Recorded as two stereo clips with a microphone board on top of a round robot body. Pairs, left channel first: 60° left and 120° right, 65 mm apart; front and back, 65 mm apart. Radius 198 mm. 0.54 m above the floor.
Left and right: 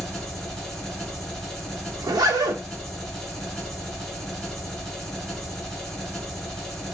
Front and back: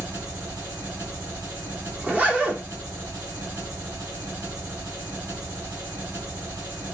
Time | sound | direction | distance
0.0 | an engine running | 145° left | 1.6 m
2.0 | a zipper | 110° right | 1.1 m